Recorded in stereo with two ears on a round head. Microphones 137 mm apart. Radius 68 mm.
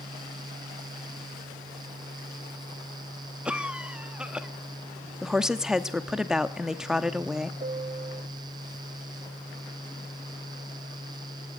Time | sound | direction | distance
3.5 | a cough | 5° right (ahead or behind) | 1.2 m
5.2 | a woman speaking | 5° right (ahead or behind) | 1.0 m
7.6 | a piano | 40° right (ahead or behind) | 0.8 m